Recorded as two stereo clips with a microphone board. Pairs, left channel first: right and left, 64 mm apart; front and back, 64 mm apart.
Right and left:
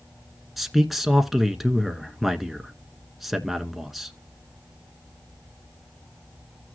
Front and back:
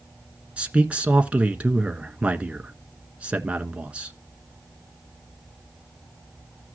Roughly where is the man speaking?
Behind.